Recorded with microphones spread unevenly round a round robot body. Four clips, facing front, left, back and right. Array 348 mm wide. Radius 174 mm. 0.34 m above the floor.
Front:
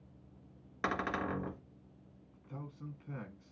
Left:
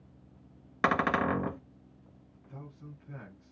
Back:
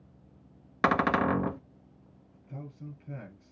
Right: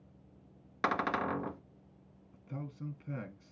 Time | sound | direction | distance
0.8 | a cupboard door | 150° left | 0.7 m
2.3 | a man speaking | 85° right | 3.5 m